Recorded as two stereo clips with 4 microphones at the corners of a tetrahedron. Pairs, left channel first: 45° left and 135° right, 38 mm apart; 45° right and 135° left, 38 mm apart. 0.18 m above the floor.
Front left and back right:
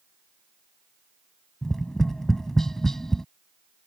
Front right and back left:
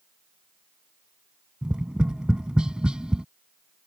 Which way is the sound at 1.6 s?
105° left.